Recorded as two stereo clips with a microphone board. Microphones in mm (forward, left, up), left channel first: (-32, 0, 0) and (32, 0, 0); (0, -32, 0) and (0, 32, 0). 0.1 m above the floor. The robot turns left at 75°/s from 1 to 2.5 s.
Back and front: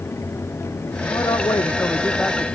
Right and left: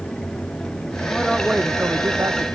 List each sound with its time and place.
1.1 s a man speaking: 160° right; by 2.6 s 90° left